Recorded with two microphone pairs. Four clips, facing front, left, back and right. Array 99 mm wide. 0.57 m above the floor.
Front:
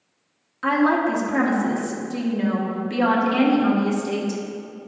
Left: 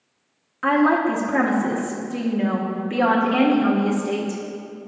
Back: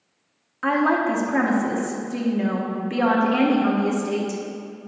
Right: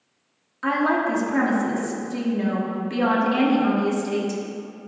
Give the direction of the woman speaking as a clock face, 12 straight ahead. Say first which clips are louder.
Left 4 dB, front 1 dB; 8 o'clock.